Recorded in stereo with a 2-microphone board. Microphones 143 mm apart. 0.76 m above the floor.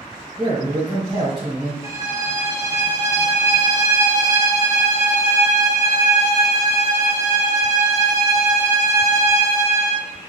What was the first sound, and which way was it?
A man speaking, 45° right (ahead or behind).